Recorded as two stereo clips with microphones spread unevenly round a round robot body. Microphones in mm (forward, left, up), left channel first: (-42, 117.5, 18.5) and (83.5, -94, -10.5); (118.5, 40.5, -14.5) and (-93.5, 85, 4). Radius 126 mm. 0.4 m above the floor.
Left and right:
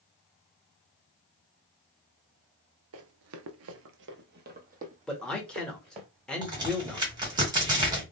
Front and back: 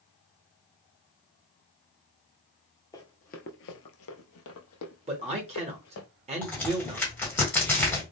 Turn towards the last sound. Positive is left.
turn(degrees=-70)